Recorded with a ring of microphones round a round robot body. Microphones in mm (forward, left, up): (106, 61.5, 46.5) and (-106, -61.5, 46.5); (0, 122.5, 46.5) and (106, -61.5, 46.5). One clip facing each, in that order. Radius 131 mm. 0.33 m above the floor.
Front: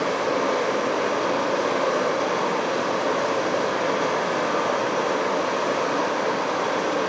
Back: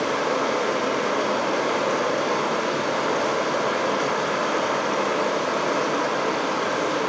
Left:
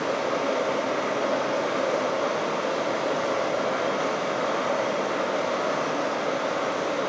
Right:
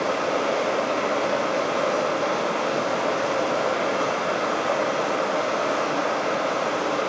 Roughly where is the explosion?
No explosion in this recording.